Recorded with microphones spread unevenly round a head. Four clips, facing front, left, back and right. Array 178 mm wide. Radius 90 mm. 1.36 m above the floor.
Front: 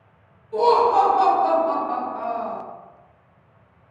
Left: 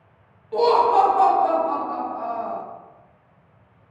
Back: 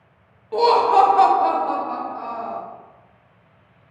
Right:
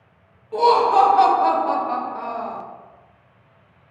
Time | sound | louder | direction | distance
0.5 | laughter | right 1 dB, back 1 dB | 175° right | 0.8 m